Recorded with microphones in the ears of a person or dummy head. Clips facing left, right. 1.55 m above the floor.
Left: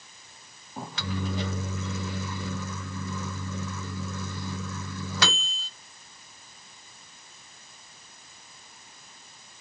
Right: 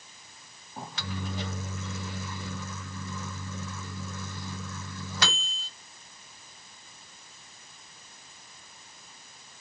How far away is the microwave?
About 0.5 m.